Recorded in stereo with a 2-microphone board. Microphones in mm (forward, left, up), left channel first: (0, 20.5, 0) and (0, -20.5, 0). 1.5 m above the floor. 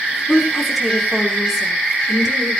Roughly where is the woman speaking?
Centre.